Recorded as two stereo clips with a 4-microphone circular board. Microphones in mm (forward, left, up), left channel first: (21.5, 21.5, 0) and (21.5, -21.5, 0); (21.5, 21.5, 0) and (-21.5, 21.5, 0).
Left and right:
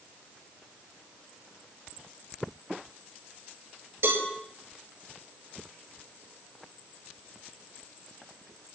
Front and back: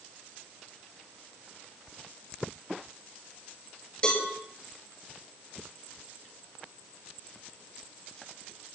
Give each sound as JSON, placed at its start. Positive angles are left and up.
{"t": 4.0, "sound": "a cowbell", "azimuth_deg": -65, "distance_m": 7.0}